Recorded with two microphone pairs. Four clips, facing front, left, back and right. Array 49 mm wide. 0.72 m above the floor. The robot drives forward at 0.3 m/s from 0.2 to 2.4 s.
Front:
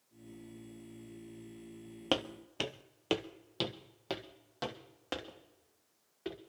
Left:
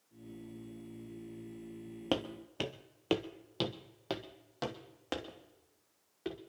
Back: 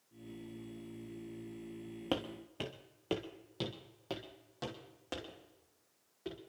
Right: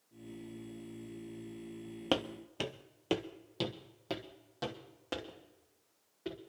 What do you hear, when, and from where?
2.1 s footsteps: 25° right, 0.7 m; by 6.4 s 65° left, 2.5 m